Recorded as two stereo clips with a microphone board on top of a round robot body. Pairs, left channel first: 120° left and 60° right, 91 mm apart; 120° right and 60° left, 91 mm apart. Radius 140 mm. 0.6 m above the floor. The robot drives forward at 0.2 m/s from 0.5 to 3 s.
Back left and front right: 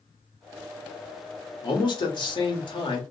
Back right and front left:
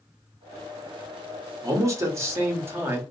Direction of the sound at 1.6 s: 105° left.